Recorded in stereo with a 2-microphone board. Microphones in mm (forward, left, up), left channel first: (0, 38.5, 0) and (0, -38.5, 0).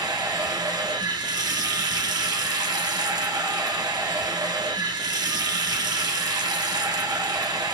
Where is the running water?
60° right (ahead or behind), 1.0 m.